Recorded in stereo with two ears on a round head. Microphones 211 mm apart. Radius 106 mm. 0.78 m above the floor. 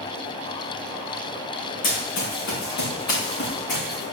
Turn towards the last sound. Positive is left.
turn(degrees=65)  # may be behind; listen again after turning